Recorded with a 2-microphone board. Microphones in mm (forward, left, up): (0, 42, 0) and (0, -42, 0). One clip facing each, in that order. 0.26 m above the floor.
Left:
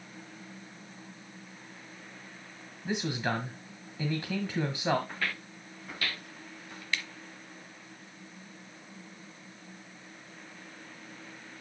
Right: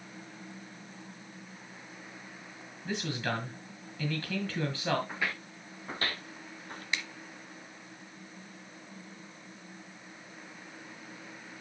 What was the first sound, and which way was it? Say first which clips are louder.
A man speaking: left 2 dB; 15° left (ahead or behind).